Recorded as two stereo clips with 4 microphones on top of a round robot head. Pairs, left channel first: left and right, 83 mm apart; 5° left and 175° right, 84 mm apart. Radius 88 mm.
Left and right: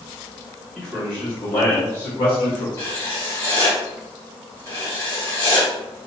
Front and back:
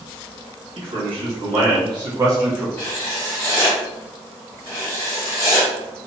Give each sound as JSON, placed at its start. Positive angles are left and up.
{"t": 0.8, "sound": "a man speaking", "azimuth_deg": 175, "distance_m": 1.3}
{"t": 2.8, "sound": "writing", "azimuth_deg": 40, "distance_m": 1.7}